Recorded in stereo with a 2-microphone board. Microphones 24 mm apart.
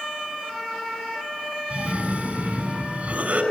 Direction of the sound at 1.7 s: 50° right (ahead or behind).